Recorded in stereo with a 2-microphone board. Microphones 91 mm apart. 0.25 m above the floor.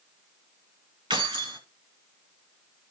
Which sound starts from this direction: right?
Keys jangling, at 1.1 s.